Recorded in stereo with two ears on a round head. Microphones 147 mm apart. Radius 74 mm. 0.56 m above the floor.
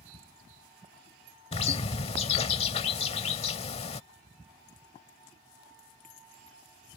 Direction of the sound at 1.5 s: 35° left (ahead or behind).